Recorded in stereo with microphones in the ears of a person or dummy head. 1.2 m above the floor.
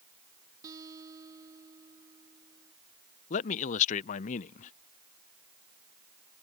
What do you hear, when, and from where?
0.6 s a guitar: 15° right (ahead or behind)
3.3 s a man speaking: 45° left (ahead or behind)